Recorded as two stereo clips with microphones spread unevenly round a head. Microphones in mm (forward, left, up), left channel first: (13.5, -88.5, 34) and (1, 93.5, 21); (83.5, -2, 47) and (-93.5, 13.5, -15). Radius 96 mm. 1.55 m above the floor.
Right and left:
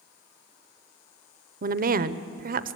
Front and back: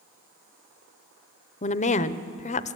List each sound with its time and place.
1.6 s a woman speaking: 45° left, 0.7 m